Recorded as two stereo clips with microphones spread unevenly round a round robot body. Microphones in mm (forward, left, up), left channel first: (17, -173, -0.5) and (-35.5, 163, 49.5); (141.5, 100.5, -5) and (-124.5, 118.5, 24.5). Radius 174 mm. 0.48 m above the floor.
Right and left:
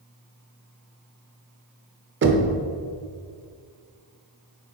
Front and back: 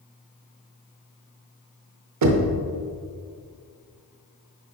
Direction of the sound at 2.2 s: 160° left.